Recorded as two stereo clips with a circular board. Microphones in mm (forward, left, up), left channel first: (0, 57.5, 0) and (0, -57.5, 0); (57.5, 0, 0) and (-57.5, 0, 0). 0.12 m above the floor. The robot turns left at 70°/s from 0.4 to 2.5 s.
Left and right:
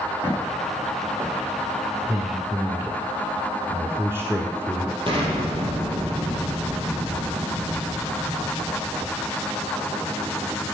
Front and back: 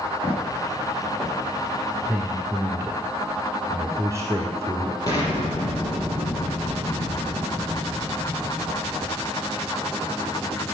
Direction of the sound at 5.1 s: 55° right.